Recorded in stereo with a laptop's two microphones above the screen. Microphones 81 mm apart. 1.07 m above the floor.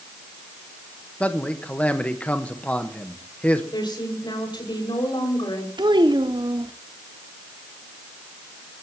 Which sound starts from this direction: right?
A child speaking, at 5.8 s.